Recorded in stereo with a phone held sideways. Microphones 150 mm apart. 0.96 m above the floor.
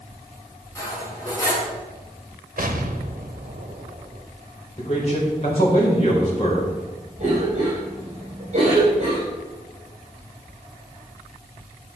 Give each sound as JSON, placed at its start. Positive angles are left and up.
{"t": 0.8, "sound": "cutlery clinking", "side_deg": 20, "distance_m": 5.0}
{"t": 2.6, "sound": "an explosion", "side_deg": -65, "distance_m": 1.1}
{"t": 4.8, "sound": "a man speaking", "side_deg": 40, "distance_m": 4.5}
{"t": 7.2, "sound": "a cough", "side_deg": -50, "distance_m": 4.5}